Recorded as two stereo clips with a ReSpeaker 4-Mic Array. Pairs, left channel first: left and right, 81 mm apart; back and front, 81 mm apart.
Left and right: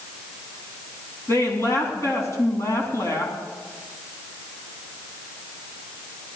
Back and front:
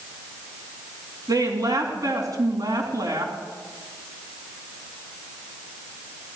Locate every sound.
1.3 s a woman speaking: 40° left, 3 m